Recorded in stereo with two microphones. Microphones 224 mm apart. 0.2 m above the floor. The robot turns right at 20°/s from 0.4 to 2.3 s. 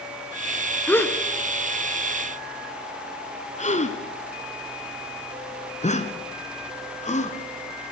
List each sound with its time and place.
0.9 s a gasp: 10° left (ahead or behind), 1.3 m; by 7.9 s 30° left (ahead or behind), 1.3 m